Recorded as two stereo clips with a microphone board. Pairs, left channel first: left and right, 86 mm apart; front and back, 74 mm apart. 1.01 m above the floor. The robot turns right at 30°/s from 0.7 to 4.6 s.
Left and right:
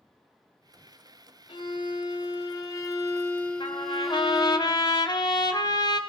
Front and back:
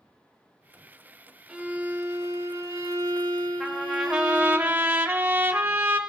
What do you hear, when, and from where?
1.5 s a violin: 105° left, 1.9 m; by 4.6 s 160° right, 1.9 m
3.6 s a trumpet: 85° left, 1.5 m; by 6.0 s 115° left, 1.5 m